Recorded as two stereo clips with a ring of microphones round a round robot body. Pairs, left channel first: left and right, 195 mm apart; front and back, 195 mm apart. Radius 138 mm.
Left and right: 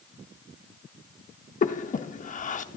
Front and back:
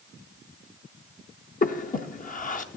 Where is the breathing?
45° left, 0.6 m.